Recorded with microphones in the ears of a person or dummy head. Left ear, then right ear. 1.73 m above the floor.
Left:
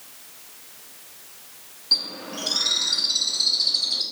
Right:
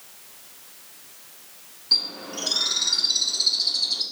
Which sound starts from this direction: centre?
A bird, at 1.9 s.